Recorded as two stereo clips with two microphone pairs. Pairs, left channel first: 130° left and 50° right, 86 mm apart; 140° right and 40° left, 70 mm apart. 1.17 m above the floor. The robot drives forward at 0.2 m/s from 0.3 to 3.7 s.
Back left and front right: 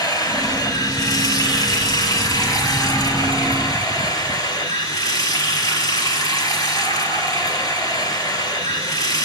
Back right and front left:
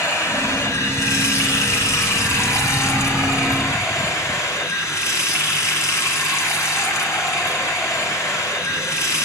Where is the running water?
175° left, 3.5 m.